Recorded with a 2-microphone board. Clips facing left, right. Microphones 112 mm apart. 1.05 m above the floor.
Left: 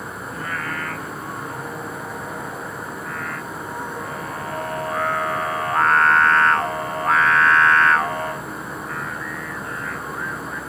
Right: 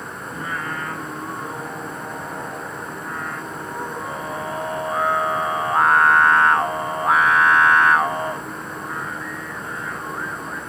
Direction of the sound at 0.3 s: 15° right (ahead or behind).